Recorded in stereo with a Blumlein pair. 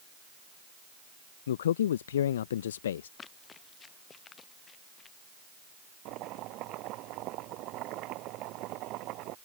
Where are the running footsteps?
20° left.